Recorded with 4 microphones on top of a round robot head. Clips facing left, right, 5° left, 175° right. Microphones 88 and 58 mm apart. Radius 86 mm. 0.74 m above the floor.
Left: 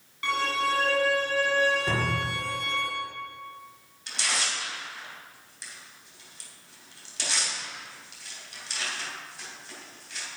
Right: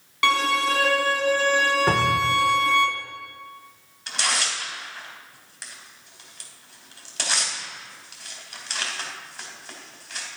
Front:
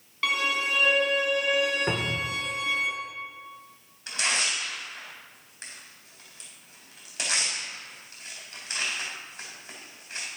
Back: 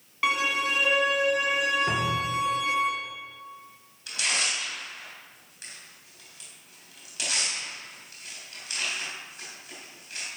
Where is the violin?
100° right, 1.8 m.